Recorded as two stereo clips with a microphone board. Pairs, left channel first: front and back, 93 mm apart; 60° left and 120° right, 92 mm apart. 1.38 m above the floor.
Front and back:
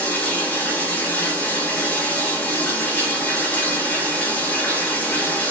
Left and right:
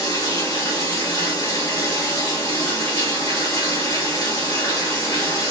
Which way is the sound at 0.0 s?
65° left.